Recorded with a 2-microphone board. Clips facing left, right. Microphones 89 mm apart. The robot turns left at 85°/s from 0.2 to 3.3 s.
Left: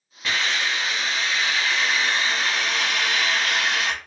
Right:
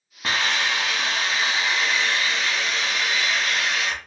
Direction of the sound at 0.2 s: 45° right.